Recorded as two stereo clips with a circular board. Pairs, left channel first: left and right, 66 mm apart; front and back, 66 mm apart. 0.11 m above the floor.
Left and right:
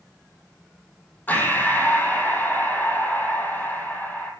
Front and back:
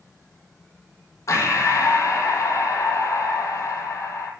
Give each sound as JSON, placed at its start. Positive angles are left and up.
{"t": 1.3, "sound": "breathing", "azimuth_deg": 30, "distance_m": 3.5}